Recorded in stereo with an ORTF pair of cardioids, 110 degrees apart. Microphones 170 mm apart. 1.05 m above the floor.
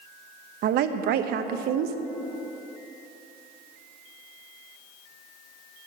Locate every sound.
0.6 s a woman speaking: 65° right, 0.7 m